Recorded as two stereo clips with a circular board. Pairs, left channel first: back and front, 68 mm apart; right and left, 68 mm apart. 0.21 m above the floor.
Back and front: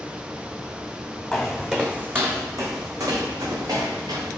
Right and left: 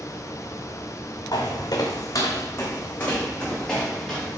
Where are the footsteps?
90° right, 0.9 m; by 4.4 s 5° right, 1.7 m.